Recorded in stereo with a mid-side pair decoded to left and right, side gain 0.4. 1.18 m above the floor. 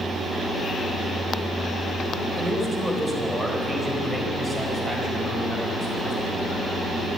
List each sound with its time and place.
2.4 s a man speaking: 10° right, 4 m; by 6.7 s 45° right, 6.5 m